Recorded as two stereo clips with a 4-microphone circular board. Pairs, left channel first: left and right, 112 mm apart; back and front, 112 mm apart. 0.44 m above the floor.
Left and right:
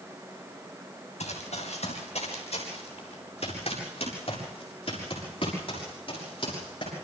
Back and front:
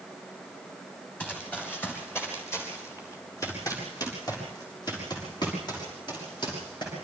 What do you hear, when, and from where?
1.2 s running footsteps: 105° left, 5.5 m; by 6.9 s 135° left, 10 m